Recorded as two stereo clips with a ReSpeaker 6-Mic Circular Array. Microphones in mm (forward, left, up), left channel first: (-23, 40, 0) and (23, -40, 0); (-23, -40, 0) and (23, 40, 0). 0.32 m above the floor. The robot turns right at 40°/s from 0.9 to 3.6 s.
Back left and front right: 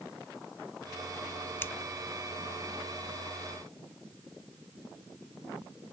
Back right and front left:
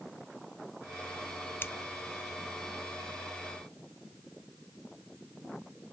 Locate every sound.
1.6 s scissors: 175° left, 0.7 m; by 1.7 s straight behind, 0.7 m